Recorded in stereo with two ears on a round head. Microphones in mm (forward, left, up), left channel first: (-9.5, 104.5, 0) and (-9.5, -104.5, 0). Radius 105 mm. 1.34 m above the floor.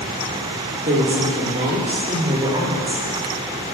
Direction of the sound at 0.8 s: 35° right (ahead or behind).